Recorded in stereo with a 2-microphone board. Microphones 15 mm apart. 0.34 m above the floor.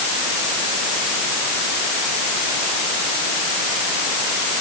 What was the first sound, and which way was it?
Only background noise.